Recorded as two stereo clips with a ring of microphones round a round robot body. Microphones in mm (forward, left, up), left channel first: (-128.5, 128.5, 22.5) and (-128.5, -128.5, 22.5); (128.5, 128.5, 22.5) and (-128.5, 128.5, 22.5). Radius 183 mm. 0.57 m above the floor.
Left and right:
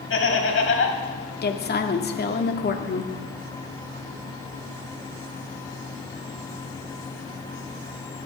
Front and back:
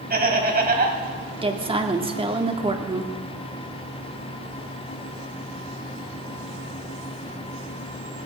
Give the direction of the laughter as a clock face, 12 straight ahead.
8 o'clock.